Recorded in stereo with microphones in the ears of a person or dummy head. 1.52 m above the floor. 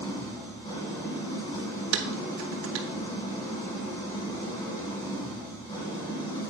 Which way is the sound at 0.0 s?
30° left (ahead or behind).